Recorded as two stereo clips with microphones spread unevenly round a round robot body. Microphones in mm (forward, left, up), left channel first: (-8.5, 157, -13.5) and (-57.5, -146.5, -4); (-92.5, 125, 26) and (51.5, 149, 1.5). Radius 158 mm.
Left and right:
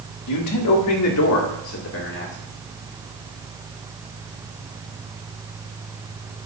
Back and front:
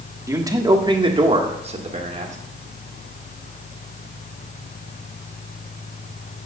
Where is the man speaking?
70° left, 1.5 m; by 2.4 s 30° left, 1.9 m.